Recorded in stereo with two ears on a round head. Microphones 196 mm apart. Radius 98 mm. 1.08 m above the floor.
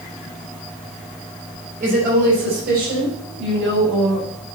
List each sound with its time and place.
1.8 s a woman speaking: 40° right (ahead or behind), 5 m; by 4.6 s 65° right (ahead or behind), 6.5 m